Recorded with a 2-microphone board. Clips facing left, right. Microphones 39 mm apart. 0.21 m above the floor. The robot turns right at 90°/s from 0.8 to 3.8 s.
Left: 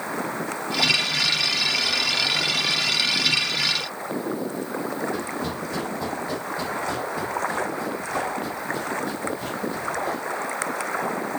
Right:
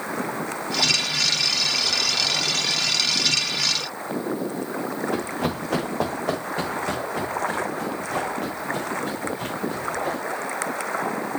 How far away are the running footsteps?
About 1.6 m.